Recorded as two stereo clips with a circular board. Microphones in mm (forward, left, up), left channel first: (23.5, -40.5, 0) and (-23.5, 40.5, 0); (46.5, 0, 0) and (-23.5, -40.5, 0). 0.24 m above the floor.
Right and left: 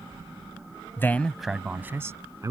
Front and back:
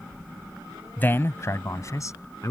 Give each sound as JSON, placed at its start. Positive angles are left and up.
{"t": 1.0, "sound": "a man speaking", "azimuth_deg": -20}